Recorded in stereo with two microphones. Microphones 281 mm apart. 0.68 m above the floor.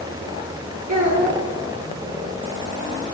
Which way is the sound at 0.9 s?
65° right (ahead or behind).